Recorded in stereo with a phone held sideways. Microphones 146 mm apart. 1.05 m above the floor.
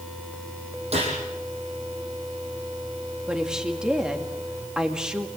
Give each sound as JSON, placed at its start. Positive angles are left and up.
{"t": 0.9, "sound": "a gunshot", "side_deg": -45, "distance_m": 8.5}
{"t": 3.3, "sound": "a woman speaking", "side_deg": -5, "distance_m": 2.0}